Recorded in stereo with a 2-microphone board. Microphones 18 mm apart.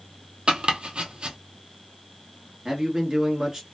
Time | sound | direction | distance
0.5 | chopping | 70° right (ahead or behind) | 0.8 m
2.6 | a man speaking | 30° right (ahead or behind) | 1.3 m